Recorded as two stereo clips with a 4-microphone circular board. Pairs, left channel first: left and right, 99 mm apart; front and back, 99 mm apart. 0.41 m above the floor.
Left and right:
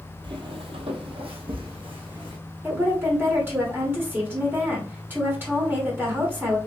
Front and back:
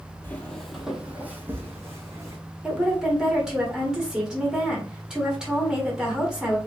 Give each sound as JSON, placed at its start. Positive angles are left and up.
{"t": 0.2, "sound": "footsteps", "azimuth_deg": -70, "distance_m": 0.7}
{"t": 2.6, "sound": "a woman speaking", "azimuth_deg": -105, "distance_m": 1.4}